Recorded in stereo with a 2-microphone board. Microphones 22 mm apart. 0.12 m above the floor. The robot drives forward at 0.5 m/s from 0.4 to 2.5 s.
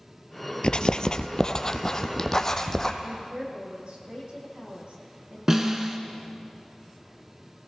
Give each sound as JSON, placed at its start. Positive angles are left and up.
{"t": 0.6, "sound": "writing", "side_deg": 50, "distance_m": 0.6}
{"t": 3.0, "sound": "a woman speaking", "side_deg": -65, "distance_m": 6.0}
{"t": 5.5, "sound": "a snare drum", "side_deg": -25, "distance_m": 1.2}